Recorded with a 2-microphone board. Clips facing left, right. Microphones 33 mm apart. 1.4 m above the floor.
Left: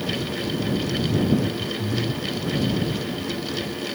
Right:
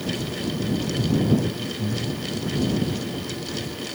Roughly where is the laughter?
Right.